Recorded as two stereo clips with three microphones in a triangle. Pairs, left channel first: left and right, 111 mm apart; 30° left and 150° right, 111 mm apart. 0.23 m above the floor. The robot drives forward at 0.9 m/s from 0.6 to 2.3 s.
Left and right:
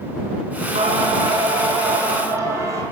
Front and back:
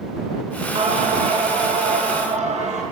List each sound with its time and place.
0.8 s singing: 115° right, 0.8 m; by 2.8 s 155° right, 1.9 m